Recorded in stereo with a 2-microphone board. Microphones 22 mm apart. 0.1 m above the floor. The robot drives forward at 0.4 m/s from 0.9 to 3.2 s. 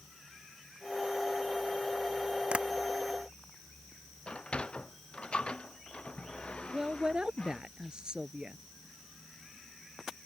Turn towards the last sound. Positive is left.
turn(degrees=-40)  # may be behind; listen again after turning